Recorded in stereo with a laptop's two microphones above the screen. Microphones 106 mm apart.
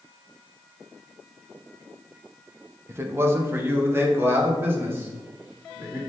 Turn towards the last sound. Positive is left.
turn(degrees=-25)  # may be behind; listen again after turning